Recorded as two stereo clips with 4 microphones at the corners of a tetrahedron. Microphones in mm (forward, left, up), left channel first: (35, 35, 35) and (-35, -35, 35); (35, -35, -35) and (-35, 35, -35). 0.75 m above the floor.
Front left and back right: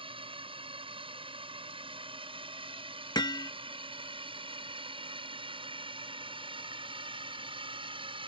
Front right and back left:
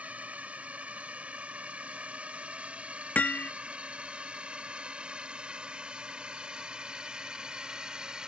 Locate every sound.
0.0 s a drone: 150° right; by 8.3 s 145° right
3.1 s hammering: 20° left